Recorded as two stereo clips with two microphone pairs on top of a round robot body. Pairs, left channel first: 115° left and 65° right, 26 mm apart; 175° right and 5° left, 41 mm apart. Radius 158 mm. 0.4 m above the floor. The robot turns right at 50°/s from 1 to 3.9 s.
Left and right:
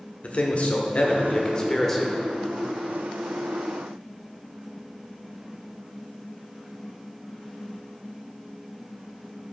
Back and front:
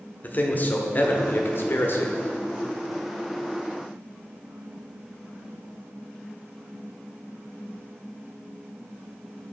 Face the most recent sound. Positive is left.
turn(degrees=-65)